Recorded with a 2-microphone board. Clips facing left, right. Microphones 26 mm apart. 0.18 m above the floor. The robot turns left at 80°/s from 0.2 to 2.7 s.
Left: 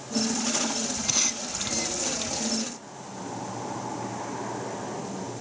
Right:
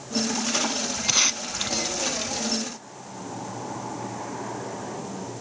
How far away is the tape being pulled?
About 0.6 m.